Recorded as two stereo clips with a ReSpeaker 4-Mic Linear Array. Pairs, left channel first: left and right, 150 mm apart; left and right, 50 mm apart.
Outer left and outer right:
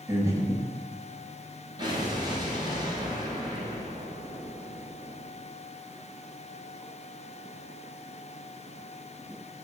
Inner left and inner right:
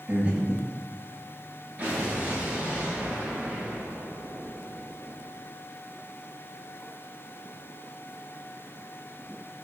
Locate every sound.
0.1 s breathing: 25° right (ahead or behind), 0.8 m
1.8 s an explosion: 30° right (ahead or behind), 1.2 m